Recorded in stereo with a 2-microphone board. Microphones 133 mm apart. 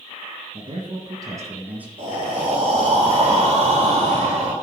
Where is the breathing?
50° right (ahead or behind), 2.0 m.